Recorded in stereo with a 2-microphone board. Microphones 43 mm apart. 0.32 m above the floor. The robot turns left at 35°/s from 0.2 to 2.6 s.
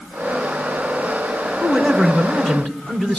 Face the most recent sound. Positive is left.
turn(degrees=140)